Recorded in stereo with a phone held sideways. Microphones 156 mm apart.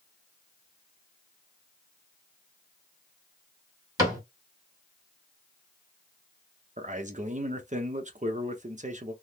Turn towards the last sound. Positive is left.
turn(degrees=-50)  # may be behind; listen again after turning